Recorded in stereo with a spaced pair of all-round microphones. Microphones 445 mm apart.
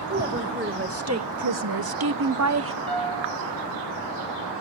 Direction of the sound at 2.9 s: 60° left (ahead or behind).